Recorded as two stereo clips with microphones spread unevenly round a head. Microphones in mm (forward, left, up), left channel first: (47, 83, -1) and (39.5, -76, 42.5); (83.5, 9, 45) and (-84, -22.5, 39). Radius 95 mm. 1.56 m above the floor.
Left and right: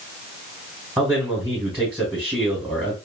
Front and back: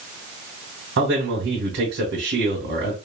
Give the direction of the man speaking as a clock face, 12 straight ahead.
6 o'clock.